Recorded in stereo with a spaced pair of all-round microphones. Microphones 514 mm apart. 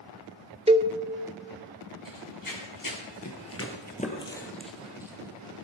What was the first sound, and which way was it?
A cowbell, 10° right (ahead or behind).